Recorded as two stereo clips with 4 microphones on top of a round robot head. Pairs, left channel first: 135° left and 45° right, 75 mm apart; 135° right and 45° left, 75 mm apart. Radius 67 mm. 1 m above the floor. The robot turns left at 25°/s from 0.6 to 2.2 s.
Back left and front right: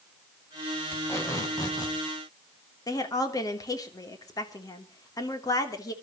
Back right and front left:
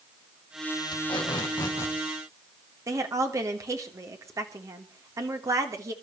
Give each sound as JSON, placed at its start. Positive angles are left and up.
{"t": 0.9, "sound": "tape being pulled", "azimuth_deg": -165, "distance_m": 4.0}
{"t": 2.9, "sound": "a woman speaking", "azimuth_deg": 95, "distance_m": 3.0}